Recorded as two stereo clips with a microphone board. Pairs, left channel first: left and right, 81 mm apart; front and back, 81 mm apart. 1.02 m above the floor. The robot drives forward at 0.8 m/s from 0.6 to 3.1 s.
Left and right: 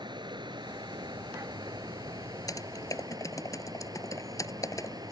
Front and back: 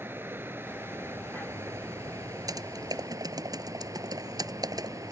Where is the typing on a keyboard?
135° left; by 5.1 s 140° left.